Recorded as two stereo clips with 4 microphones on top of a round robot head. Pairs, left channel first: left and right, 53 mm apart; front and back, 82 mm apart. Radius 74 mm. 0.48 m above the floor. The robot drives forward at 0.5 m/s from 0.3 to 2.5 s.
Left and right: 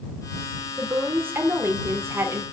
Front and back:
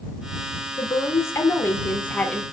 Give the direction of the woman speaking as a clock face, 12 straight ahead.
1 o'clock.